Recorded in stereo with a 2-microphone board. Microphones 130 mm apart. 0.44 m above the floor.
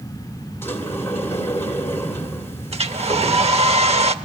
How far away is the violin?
I don't hear a violin.